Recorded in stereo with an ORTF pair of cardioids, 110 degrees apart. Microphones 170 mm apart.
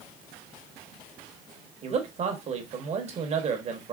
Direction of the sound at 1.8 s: 45° right.